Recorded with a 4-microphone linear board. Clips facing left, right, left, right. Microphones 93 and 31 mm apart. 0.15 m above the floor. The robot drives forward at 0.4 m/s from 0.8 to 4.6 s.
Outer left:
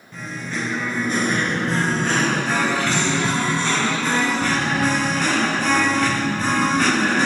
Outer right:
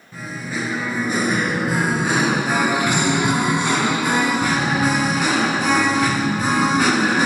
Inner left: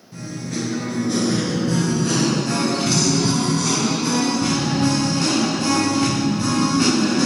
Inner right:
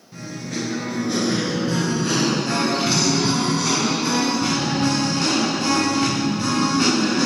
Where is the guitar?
No guitar in this recording.